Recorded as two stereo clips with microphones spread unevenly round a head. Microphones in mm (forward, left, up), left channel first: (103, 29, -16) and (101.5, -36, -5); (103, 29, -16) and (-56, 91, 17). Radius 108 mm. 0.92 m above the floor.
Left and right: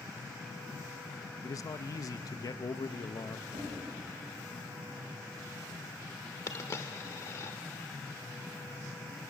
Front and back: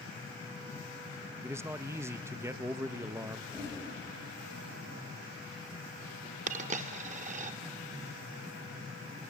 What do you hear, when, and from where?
1.4 s a man speaking: 80° left, 0.7 m
3.5 s knocking: 105° right, 5.5 m
6.5 s a dropped coin: 145° left, 0.7 m